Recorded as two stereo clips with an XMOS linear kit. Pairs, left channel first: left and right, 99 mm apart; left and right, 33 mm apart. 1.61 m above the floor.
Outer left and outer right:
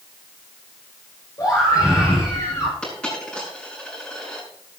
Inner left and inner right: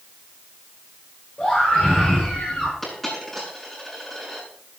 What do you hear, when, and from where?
1.4 s a scream: 30° left (ahead or behind), 6.5 m; by 2.7 s 25° left (ahead or behind), 7 m
2.8 s a dropped coin: 10° left (ahead or behind), 8 m